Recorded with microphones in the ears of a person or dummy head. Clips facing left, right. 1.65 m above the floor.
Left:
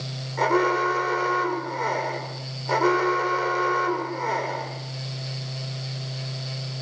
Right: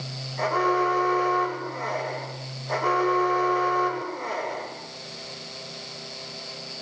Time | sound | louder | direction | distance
0.4 | an alarm | left 2 dB | 75° left (ahead or behind) | 8.5 m